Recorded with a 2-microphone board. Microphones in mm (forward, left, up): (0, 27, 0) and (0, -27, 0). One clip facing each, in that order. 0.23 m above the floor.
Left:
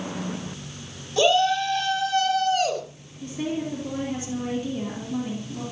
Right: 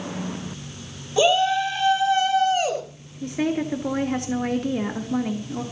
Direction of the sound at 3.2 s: 70° right (ahead or behind).